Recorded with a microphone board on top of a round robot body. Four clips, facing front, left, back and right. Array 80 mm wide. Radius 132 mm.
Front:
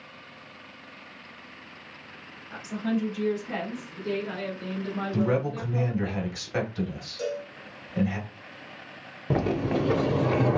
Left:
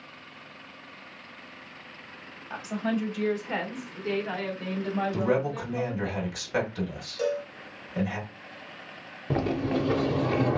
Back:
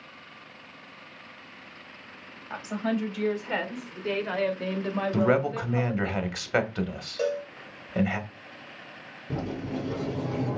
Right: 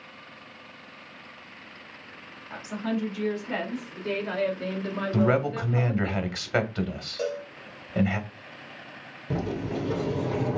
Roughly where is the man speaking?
Behind right.